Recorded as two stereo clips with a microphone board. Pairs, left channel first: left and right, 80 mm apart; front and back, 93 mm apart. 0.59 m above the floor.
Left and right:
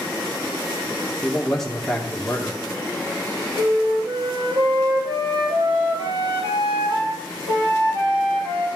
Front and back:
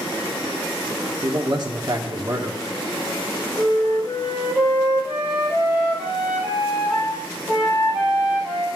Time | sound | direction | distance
1.2 | a man speaking | 175° left | 1.2 m
3.6 | a flute | 100° right | 2.5 m